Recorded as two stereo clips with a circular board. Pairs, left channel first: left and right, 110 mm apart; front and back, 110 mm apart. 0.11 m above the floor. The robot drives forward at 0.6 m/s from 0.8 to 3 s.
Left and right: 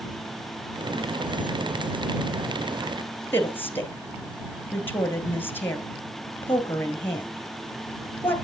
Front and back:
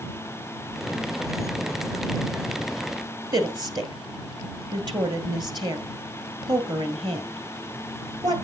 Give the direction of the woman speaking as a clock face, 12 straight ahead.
7 o'clock.